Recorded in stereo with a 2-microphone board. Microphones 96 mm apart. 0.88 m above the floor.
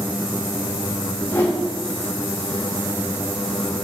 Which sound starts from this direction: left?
A whoosh, at 1.1 s.